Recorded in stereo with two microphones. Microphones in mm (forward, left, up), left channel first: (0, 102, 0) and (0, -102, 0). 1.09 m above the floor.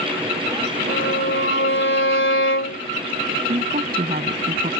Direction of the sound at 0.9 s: 80° left.